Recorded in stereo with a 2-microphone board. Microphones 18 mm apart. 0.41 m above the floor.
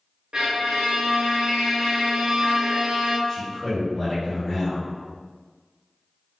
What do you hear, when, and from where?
0.3 s a violin: 55° right (ahead or behind), 0.7 m
3.3 s a man speaking: 5° right (ahead or behind), 1.6 m